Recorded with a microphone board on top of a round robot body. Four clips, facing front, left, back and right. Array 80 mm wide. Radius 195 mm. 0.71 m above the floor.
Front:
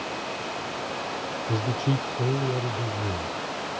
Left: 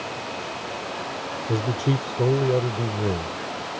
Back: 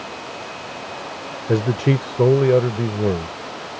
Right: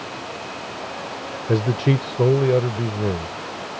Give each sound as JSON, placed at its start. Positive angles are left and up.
{"t": 1.5, "sound": "a man speaking", "azimuth_deg": -155}